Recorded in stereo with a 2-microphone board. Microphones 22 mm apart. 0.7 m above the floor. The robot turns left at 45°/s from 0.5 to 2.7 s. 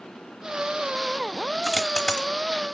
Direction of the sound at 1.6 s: 20° left (ahead or behind).